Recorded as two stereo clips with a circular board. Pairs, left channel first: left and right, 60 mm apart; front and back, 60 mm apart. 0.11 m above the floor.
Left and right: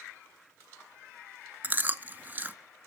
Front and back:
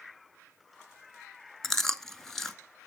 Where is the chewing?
75° right, 0.8 m.